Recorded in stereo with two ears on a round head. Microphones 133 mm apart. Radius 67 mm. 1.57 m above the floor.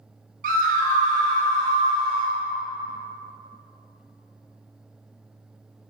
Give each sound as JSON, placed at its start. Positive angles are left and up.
{"t": 0.4, "sound": "a scream", "side_deg": -60, "distance_m": 1.6}